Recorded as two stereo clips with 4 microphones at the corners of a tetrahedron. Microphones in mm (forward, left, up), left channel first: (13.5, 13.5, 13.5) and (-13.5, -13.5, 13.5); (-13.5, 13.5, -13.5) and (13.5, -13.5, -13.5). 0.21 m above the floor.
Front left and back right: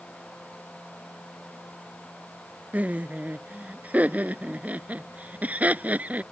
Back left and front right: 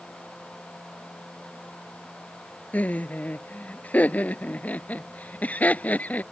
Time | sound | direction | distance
2.7 | laughter | straight behind | ?